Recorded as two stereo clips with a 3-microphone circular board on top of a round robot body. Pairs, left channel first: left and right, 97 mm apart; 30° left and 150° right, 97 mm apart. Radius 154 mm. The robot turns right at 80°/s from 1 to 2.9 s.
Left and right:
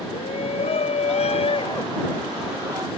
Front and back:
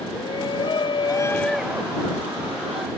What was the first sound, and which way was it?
A shout, 75° left.